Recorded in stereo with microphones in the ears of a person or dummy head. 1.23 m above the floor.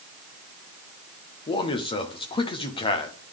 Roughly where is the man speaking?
Left.